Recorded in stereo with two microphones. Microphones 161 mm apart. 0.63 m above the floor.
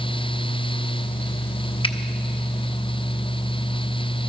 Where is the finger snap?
35° left (ahead or behind), 0.6 m.